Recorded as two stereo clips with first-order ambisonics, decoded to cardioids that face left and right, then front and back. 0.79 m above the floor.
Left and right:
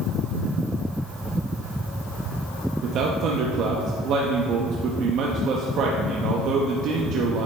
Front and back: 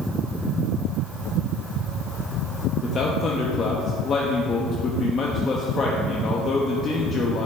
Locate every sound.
2.8 s a man speaking: 60° right, 0.6 m